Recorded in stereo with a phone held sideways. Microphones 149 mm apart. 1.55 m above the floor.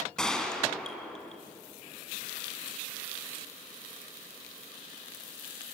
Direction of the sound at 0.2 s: 5° left (ahead or behind).